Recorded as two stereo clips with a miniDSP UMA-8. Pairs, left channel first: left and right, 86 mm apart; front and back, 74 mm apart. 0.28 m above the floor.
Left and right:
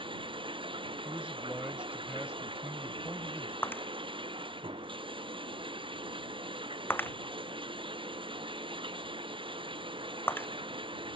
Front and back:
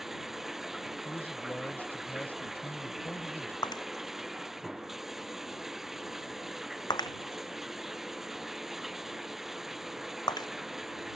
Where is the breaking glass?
25° left.